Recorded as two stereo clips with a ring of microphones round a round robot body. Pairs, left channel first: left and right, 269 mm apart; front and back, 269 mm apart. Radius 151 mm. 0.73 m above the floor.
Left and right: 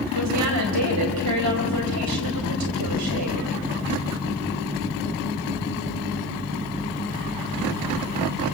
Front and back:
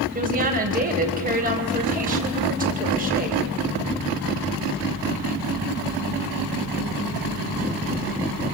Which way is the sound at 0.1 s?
120° right.